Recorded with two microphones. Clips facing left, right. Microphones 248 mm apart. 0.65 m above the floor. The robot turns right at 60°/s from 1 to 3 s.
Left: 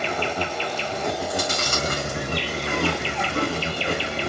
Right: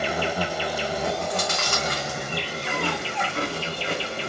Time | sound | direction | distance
0.0 | an insect | 10° right | 0.7 m
1.2 | chewing | 20° left (ahead or behind) | 1.8 m